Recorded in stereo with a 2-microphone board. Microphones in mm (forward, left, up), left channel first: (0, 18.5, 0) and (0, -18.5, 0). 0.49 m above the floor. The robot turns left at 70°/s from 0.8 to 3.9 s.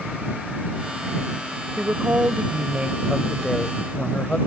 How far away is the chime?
I don't hear a chime.